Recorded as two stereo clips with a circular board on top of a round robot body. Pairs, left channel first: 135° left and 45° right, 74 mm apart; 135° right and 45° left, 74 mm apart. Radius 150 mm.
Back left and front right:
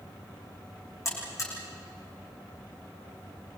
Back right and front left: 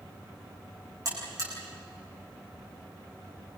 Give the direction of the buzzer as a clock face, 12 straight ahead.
9 o'clock.